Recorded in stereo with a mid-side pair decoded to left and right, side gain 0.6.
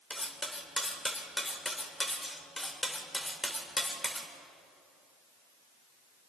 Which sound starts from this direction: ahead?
Cutlery clinking, at 0.1 s.